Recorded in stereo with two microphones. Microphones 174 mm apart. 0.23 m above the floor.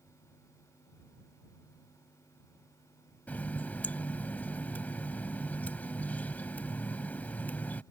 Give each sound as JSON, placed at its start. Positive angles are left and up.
{"t": 3.3, "sound": "a running tap", "side_deg": 10}